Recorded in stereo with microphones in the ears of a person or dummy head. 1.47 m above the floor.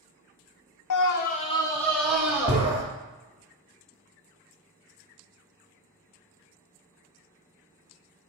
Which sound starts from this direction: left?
A scream, at 0.9 s.